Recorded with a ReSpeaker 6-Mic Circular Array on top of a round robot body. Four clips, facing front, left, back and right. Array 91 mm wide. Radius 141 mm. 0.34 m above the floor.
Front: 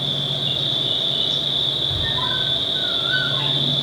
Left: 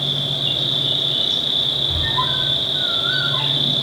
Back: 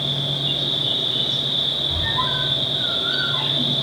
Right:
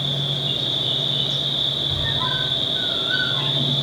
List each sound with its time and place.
0.0 s an insect: 90° left, 1.4 m
1.9 s a squeak: 115° left, 5 m